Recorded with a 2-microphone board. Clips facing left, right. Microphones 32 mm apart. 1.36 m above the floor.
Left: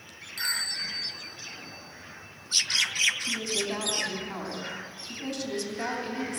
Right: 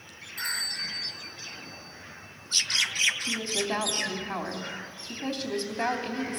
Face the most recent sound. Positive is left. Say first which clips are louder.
# even
turn(degrees=-20)  # may be behind; listen again after turning